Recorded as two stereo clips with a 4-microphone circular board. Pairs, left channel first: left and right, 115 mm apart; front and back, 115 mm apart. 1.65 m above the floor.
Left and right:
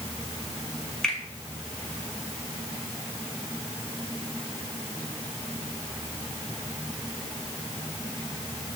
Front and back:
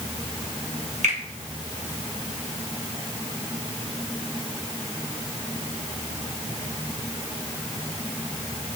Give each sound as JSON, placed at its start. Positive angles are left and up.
{"t": 1.0, "sound": "a finger snap", "azimuth_deg": 175, "distance_m": 2.5}